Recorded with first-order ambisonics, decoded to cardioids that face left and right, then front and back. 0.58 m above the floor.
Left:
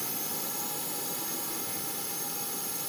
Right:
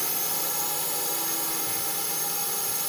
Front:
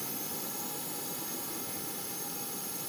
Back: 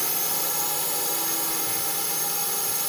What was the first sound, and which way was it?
A drone, 150° right.